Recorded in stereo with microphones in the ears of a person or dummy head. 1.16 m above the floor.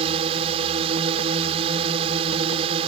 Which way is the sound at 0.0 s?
30° right (ahead or behind).